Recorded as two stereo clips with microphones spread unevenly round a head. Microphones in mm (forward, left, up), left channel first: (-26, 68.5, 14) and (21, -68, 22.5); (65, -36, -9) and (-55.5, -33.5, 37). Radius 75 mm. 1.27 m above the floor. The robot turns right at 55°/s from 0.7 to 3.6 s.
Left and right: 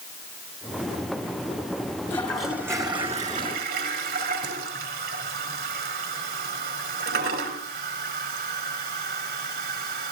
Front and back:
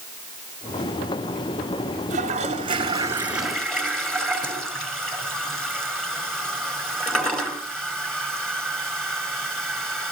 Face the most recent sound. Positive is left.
turn(degrees=-95)